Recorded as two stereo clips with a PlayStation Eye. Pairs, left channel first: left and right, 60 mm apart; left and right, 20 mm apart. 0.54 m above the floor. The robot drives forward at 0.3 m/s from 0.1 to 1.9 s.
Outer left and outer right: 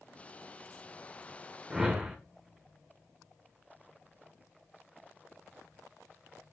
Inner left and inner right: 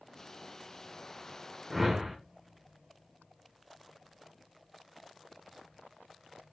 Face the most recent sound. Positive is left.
turn(degrees=-10)  # may be behind; listen again after turning